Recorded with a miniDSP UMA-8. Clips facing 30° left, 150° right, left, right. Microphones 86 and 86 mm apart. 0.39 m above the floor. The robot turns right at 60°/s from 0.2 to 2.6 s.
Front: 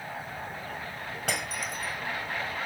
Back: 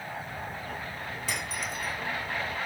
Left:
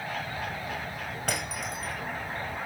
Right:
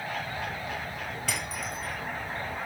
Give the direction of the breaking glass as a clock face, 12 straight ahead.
10 o'clock.